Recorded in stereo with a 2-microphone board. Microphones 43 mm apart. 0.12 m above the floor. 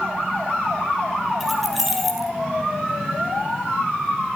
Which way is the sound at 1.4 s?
5° right (ahead or behind).